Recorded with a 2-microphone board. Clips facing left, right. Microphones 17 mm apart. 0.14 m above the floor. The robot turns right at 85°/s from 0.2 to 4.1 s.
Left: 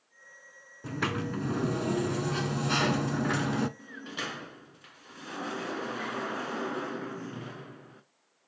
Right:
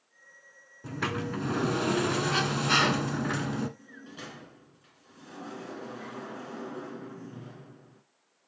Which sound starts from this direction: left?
A sliding door, at 3.8 s.